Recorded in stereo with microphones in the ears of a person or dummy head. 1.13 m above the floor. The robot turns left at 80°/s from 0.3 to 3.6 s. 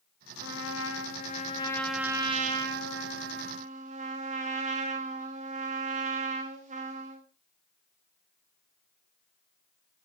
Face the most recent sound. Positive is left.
turn(degrees=-135)